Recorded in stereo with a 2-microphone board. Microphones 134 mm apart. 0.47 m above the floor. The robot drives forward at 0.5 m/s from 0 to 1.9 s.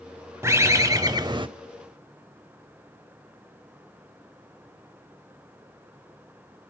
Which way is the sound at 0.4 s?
20° right (ahead or behind).